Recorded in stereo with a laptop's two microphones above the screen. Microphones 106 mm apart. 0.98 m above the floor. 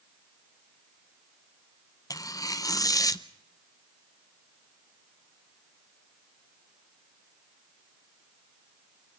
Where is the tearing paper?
35° left (ahead or behind), 0.7 m.